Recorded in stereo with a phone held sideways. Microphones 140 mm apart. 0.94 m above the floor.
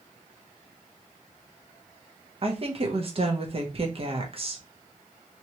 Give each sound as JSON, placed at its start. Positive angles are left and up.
{"t": 2.4, "sound": "a woman speaking", "side_deg": -40, "distance_m": 0.8}